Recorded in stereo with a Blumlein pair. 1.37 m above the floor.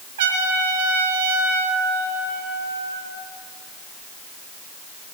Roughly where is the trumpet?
Ahead right.